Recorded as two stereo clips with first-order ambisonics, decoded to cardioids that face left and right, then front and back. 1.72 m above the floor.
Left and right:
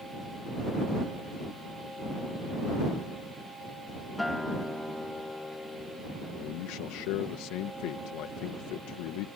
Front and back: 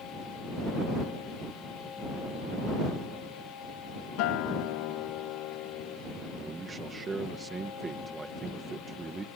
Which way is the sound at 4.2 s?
5° left.